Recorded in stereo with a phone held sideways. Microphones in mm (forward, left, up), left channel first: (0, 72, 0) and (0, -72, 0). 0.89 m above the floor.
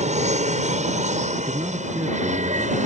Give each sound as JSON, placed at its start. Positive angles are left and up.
{"t": 0.0, "sound": "an aircraft", "side_deg": -55}
{"t": 1.4, "sound": "a man speaking", "side_deg": -25}